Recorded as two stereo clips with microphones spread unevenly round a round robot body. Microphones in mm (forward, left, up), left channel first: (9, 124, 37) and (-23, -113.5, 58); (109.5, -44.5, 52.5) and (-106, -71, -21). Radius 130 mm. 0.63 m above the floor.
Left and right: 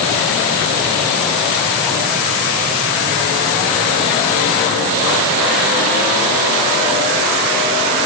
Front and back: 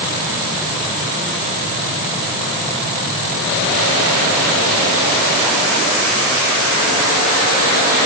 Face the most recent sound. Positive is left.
No sound to turn to.